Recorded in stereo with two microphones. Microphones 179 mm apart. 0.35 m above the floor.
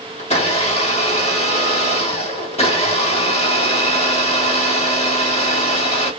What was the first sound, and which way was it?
A blender, 35° left (ahead or behind).